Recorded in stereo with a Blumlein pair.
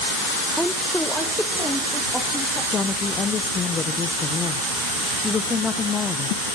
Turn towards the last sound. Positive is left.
turn(degrees=20)